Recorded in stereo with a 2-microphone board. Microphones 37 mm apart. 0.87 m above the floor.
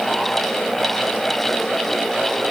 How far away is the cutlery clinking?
I don't hear cutlery clinking.